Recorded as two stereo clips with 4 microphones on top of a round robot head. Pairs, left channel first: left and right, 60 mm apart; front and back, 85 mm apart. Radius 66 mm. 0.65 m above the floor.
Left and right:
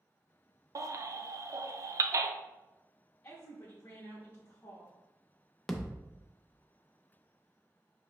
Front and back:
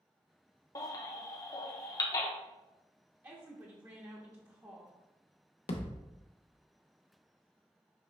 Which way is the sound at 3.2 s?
140° left.